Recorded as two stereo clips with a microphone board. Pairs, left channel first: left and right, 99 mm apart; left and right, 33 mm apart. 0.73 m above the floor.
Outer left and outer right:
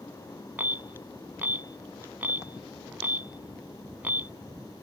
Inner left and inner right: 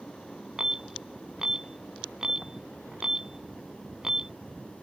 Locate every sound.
0.6 s an alarm: 20° right (ahead or behind)